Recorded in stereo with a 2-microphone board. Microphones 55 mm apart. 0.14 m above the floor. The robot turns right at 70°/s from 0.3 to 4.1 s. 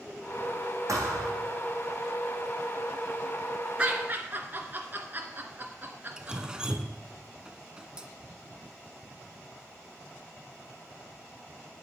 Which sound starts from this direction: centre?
Dripping, at 6.2 s.